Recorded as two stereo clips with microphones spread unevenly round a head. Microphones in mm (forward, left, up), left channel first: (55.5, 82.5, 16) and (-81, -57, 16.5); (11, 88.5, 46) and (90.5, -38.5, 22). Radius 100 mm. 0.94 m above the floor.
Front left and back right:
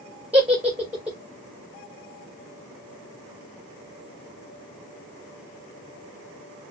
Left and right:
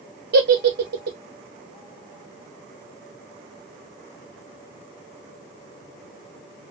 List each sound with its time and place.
0.3 s a giggle: 50° right, 1.1 m